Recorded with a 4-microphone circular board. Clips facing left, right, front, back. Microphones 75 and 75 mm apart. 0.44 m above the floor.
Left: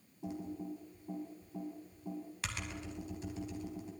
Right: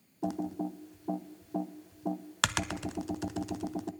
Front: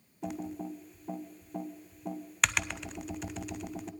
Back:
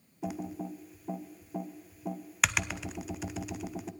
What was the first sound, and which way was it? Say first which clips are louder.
Typing on a keyboard: right 8 dB, even; 90° right.